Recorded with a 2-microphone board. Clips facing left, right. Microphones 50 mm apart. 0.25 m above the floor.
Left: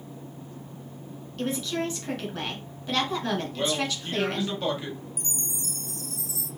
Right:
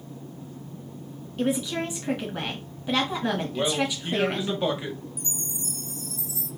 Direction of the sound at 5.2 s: 70° left (ahead or behind).